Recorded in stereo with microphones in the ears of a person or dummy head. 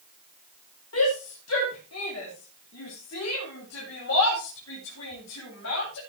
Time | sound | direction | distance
0.9 | a shout | 75° left (ahead or behind) | 3 m